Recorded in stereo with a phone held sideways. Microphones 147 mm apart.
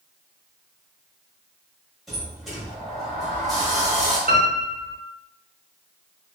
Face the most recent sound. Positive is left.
turn(degrees=-70)  # may be behind; listen again after turning